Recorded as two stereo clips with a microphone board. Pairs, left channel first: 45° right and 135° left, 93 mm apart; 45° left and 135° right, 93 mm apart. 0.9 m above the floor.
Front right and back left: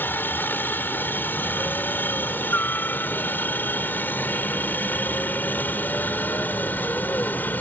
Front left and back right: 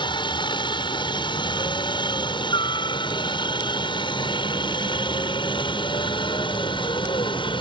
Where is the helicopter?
20° left; by 7.6 s 25° left.